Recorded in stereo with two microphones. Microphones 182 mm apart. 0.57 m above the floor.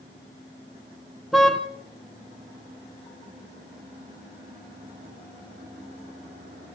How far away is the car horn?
About 3.5 m.